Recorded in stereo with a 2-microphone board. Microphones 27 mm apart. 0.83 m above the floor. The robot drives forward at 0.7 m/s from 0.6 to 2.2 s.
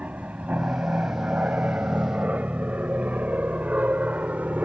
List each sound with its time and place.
0.0 s an aircraft: 60° right (ahead or behind); by 4.7 s 65° right (ahead or behind)